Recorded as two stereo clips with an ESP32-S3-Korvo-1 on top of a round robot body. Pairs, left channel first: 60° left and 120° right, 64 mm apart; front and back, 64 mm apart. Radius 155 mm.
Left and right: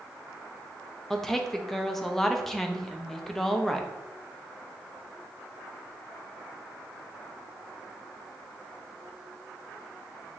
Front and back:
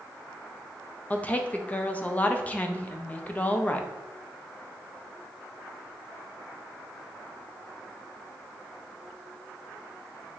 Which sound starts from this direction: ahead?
A woman speaking, at 1.1 s.